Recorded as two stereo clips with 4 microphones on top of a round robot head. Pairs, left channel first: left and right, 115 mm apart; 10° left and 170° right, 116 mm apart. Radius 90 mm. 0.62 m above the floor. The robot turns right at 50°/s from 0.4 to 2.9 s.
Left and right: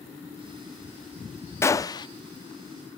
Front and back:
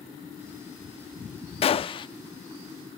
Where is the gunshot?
25° left, 0.7 m; by 2.1 s 50° left, 0.7 m.